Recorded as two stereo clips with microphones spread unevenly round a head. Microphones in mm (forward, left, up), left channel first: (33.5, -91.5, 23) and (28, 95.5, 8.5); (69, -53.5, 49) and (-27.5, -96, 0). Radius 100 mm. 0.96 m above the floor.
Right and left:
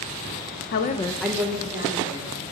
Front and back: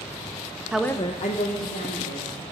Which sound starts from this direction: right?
A woman speaking, at 0.7 s.